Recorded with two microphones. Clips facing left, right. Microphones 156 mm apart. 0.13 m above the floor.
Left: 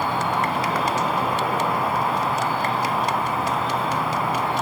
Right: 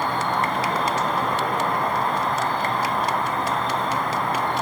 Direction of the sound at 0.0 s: 5° left (ahead or behind).